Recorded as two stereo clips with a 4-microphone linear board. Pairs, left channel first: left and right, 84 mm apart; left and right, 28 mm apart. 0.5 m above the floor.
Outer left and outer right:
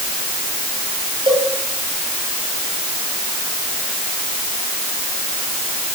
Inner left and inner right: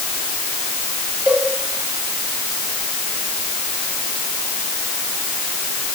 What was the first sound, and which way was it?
A cowbell, 70° right (ahead or behind).